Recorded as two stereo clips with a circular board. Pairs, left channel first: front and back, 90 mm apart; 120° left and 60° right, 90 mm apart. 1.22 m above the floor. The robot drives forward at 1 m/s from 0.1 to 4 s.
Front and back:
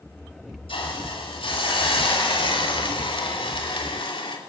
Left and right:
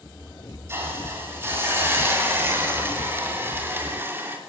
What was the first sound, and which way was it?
A hiss, straight ahead.